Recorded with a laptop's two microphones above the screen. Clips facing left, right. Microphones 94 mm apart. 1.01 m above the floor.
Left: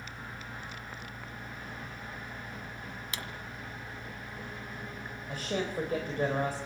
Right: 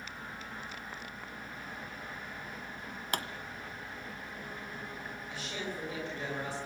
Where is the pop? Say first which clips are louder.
Right 8 dB; 55° right (ahead or behind), 1.6 m.